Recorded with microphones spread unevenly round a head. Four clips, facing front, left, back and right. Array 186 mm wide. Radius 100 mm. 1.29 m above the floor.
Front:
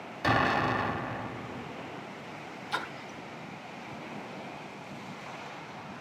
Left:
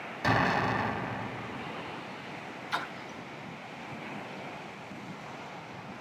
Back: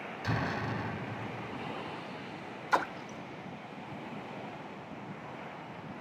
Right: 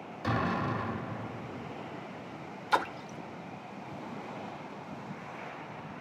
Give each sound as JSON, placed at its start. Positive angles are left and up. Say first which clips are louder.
{"t": 0.2, "sound": "an explosion", "louder": "left 4 dB, front 9 dB", "azimuth_deg": 50, "distance_m": 1.9}
{"t": 2.7, "sound": "a splash", "louder": "right 7 dB, back 6 dB", "azimuth_deg": -140, "distance_m": 0.8}